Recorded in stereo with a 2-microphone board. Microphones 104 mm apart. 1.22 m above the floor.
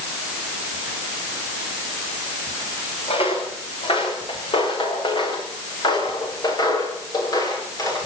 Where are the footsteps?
65° left (ahead or behind), 6.5 m; by 8.0 s 35° left (ahead or behind), 8.5 m.